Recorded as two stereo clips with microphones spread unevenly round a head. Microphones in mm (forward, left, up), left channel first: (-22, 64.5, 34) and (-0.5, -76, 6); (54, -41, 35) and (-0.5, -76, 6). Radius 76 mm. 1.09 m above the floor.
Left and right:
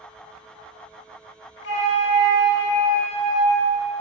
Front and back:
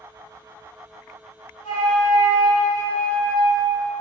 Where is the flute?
85° left, 3 m.